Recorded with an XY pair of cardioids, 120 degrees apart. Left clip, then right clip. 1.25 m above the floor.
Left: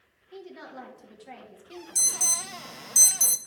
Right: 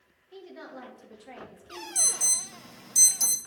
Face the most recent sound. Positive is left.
turn(degrees=25)